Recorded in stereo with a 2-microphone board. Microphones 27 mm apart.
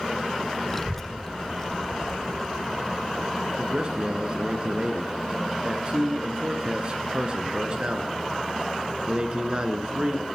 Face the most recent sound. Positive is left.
turn(degrees=-35)  # may be behind; listen again after turning